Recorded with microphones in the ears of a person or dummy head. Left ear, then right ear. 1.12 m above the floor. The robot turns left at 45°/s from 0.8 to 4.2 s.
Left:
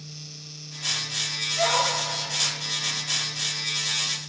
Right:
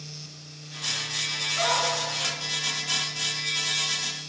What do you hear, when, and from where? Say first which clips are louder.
1.6 s a dog barking: left 2 dB; 65° right (ahead or behind), 3.5 m; by 1.9 s 75° right (ahead or behind), 3.5 m